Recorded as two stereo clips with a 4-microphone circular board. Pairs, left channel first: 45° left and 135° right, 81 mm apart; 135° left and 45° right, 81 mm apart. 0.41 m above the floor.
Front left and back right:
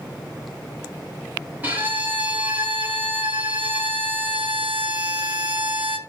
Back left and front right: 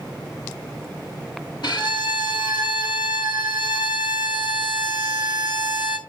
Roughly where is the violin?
Behind left.